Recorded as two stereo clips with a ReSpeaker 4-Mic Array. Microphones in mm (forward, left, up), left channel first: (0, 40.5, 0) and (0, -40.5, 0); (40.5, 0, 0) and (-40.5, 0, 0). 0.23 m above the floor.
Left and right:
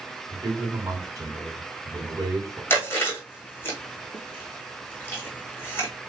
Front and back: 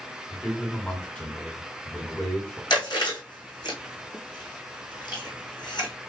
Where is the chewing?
30° left, 2.5 m.